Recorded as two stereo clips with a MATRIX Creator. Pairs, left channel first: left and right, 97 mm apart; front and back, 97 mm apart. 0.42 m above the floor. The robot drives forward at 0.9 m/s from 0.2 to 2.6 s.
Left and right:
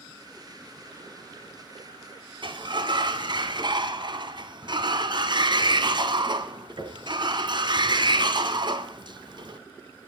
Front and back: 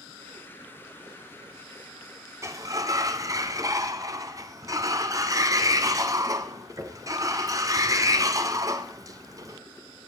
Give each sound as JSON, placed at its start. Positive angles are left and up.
{"t": 2.4, "sound": "a sliding door", "azimuth_deg": -120, "distance_m": 1.2}